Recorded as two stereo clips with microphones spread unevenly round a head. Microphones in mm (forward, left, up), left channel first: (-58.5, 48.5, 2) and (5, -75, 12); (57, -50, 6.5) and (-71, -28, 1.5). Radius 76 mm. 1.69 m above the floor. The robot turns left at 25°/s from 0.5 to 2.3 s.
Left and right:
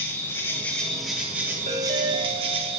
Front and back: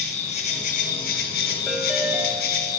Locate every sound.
0.0 s an insect: 40° left, 1.6 m; by 2.8 s 5° right, 1.6 m
1.7 s a ringtone: 105° right, 4 m; by 2.8 s 120° right, 4 m